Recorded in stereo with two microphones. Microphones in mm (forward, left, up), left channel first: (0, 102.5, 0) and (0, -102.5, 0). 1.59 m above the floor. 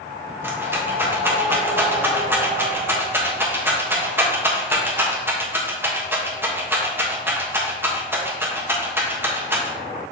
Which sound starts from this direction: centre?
A rattle, at 0.4 s.